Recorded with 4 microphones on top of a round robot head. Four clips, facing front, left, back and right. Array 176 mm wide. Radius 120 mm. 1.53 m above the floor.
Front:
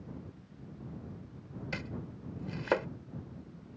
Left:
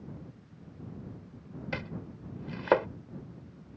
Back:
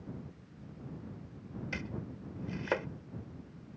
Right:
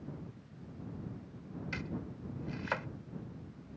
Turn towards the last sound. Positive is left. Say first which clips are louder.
# left 3 dB, front 2 dB
turn(degrees=80)